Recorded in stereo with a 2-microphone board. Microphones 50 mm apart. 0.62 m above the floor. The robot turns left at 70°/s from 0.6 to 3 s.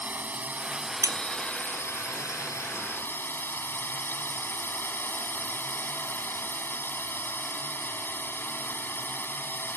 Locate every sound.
0.0 s a drone: 145° right; by 9.8 s 45° left
1.0 s a bicycle bell: 75° right; by 1.7 s 125° right